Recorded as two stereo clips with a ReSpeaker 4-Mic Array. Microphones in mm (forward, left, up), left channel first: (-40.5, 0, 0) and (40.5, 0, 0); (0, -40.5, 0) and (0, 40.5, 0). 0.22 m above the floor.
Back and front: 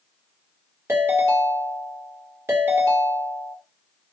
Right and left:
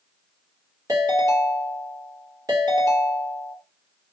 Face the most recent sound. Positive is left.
turn(degrees=60)